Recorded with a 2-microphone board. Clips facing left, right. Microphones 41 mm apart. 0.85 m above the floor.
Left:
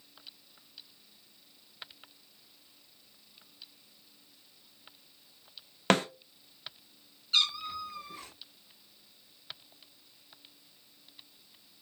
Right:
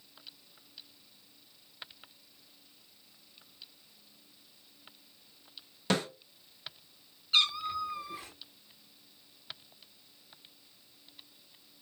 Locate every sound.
5.9 s a snare drum: 65° left (ahead or behind), 0.8 m
7.3 s a cat meowing: 10° right (ahead or behind), 1.0 m